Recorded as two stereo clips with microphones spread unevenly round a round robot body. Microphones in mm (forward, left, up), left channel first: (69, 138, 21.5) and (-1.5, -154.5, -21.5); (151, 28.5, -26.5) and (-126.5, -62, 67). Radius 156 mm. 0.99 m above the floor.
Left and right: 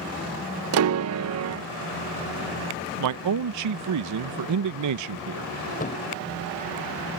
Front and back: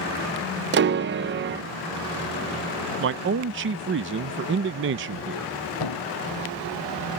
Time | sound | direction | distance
0.7 | a piano | 100° right | ?
3.0 | a man speaking | 100° right | ?
5.8 | a thud | 15° left | ?